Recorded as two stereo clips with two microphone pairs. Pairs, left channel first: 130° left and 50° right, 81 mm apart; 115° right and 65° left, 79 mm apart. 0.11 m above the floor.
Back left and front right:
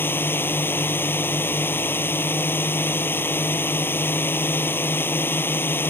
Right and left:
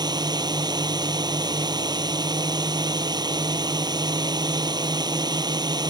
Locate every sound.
0.0 s a drone: 70° left